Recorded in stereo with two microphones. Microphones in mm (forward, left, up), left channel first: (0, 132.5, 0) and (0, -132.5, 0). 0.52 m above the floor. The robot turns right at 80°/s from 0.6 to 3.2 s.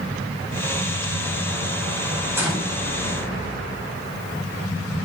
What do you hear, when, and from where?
2.4 s a gunshot: 10° right, 3.5 m; by 2.8 s 25° left, 3.5 m